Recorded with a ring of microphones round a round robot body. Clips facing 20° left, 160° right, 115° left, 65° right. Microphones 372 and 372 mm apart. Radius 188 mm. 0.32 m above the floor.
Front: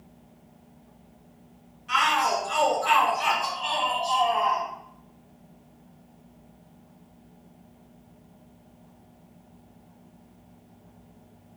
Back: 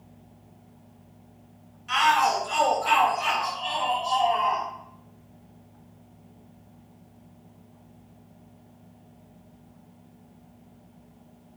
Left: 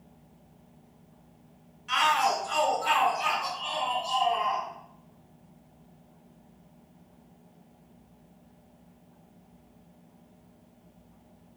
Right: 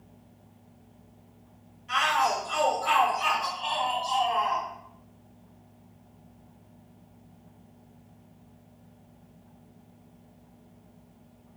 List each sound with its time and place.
1.9 s a shout: 140° left, 1.5 m; by 4.7 s 25° right, 1.6 m